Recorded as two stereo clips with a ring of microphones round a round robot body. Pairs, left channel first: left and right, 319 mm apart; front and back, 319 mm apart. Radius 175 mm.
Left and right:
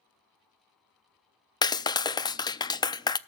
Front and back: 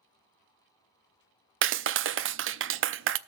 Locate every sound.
1.6 s a clap: 160° left, 0.5 m